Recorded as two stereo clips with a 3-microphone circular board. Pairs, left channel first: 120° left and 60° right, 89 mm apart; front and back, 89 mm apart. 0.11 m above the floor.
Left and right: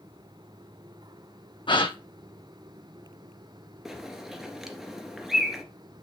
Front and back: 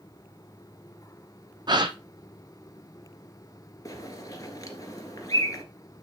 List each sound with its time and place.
1.7 s a gasp: 145° left, 1.1 m
3.9 s a bird: 25° left, 1.7 m